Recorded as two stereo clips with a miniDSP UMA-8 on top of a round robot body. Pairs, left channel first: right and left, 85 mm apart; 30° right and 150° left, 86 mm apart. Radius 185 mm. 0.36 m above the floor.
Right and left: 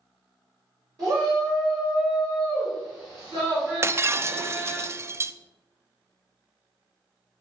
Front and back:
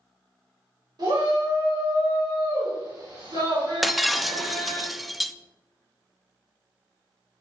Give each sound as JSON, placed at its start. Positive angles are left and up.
{"t": 1.0, "sound": "a shout", "azimuth_deg": 130, "distance_m": 3.0}
{"t": 3.8, "sound": "breaking glass", "azimuth_deg": 60, "distance_m": 0.5}